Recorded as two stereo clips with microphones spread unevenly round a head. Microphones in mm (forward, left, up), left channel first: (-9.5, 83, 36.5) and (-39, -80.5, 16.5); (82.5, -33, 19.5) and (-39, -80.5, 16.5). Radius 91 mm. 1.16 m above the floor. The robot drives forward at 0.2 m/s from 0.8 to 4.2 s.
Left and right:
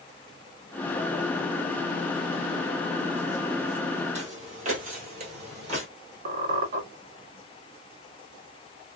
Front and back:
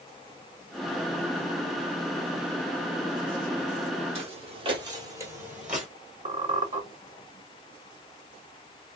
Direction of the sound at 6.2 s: 135° right.